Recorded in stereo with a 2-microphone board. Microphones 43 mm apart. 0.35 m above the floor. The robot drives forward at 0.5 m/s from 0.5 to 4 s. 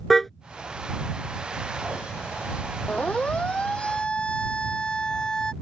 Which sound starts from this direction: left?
A siren, at 2.9 s.